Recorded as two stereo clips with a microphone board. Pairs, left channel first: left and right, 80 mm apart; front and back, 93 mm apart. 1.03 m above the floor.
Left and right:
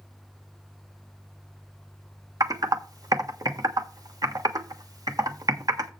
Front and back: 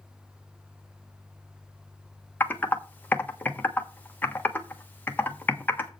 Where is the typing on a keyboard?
65° right, 1.2 m.